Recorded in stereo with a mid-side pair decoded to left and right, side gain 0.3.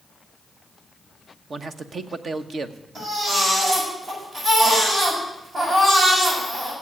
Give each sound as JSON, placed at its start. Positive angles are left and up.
{"t": 1.5, "sound": "a man speaking", "azimuth_deg": -60, "distance_m": 1.1}
{"t": 3.0, "sound": "a baby crying", "azimuth_deg": -60, "distance_m": 8.0}